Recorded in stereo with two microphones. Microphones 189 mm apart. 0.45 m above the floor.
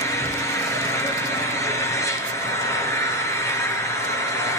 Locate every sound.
0.0 s an engine running: 15° left (ahead or behind), 4 m